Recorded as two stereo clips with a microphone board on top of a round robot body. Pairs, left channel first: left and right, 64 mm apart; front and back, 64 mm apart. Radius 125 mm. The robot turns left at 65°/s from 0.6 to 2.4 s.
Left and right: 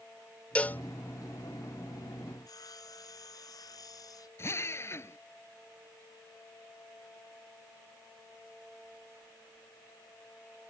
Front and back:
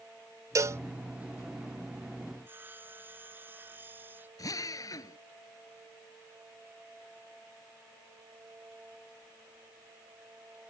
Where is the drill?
40° left.